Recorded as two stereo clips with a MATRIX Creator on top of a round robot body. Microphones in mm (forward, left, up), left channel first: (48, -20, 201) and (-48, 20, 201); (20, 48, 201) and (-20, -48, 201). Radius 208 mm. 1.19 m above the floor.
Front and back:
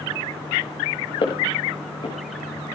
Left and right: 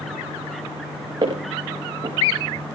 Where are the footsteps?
65° right, 4.5 m.